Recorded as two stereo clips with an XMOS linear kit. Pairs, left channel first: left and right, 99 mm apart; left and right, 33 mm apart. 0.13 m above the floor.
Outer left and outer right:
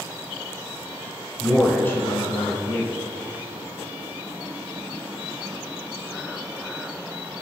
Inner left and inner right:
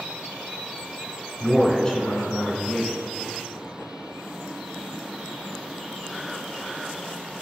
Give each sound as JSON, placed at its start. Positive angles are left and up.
{"t": 1.4, "sound": "a man speaking", "side_deg": 15, "distance_m": 1.5}